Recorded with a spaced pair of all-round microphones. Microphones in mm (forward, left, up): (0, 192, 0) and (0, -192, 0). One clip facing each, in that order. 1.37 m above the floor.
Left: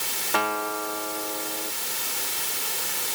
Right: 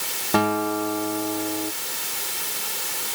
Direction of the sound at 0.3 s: 60° right (ahead or behind).